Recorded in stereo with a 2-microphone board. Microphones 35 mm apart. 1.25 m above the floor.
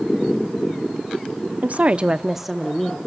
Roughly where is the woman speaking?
Right.